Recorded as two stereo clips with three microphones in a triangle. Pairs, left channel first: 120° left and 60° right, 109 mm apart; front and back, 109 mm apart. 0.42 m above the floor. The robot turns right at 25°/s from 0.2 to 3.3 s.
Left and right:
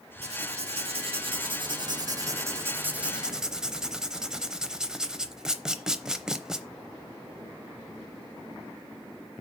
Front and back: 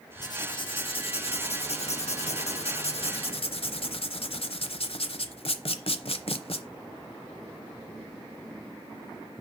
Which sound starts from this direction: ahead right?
Writing, at 0.2 s.